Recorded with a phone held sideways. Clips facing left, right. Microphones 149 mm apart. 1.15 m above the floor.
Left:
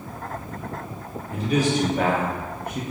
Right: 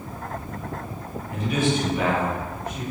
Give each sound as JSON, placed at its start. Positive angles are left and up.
{"t": 1.3, "sound": "a man speaking", "side_deg": 35, "distance_m": 1.3}